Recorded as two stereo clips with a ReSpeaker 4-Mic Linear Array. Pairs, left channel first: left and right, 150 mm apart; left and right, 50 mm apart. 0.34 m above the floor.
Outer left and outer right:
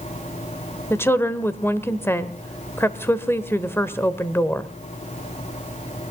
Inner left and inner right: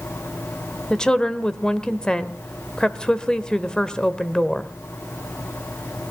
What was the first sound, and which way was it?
A woman speaking, 15° left (ahead or behind).